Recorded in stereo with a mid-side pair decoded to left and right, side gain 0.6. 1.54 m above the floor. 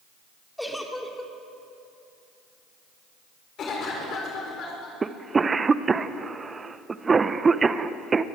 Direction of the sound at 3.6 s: 50° left.